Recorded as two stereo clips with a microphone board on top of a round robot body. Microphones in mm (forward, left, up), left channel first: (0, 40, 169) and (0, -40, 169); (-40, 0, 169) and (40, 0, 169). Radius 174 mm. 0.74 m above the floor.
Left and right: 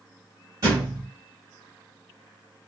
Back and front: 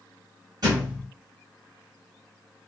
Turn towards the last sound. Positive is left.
turn(degrees=-40)